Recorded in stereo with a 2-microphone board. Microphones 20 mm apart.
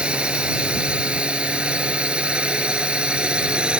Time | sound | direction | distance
0.0 | a drone | 70° right (ahead or behind) | ?